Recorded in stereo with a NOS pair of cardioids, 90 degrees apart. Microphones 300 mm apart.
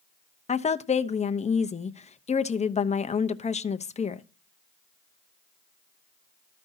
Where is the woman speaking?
25° left, 0.8 m.